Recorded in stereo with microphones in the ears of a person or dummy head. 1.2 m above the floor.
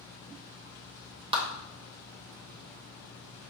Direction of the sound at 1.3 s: 30° right (ahead or behind).